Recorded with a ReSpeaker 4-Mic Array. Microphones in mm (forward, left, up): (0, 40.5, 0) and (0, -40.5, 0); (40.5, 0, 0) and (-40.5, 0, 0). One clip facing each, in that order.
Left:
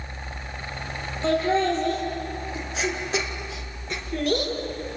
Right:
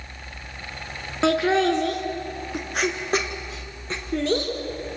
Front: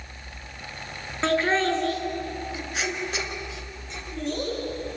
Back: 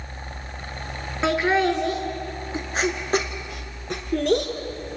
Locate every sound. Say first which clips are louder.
1.2 s laughter: right 2 dB, back 2 dB; 95° right, 3.5 m; by 4.5 s 155° right, 4 m